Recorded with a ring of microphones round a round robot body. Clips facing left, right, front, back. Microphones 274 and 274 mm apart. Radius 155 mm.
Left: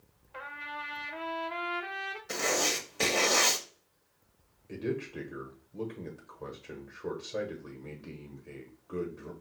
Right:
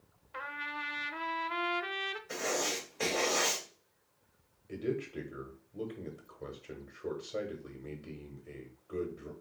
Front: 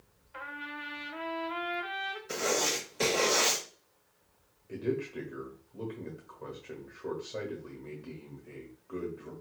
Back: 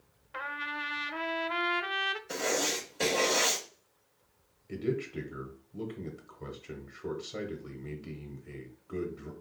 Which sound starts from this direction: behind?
A man speaking, at 4.7 s.